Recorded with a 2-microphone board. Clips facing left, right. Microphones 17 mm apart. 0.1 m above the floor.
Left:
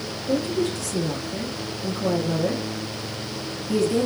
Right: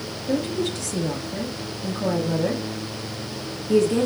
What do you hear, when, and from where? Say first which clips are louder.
0.3 s a woman speaking: left 1 dB; 30° right (ahead or behind), 1.3 m